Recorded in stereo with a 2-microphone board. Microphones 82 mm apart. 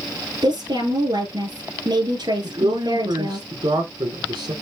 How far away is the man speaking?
About 3.5 m.